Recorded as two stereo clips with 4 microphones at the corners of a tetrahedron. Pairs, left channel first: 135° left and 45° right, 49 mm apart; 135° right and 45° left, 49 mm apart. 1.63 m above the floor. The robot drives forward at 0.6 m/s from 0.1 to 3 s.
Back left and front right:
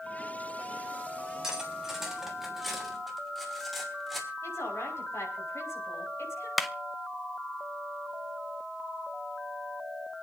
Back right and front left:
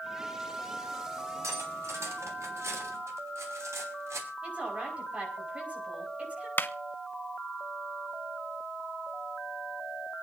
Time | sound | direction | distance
1.4 | cutlery clinking | 35° left | 3.5 m
4.4 | a woman speaking | 110° left | 5.5 m
6.6 | a clap | 135° right | 0.9 m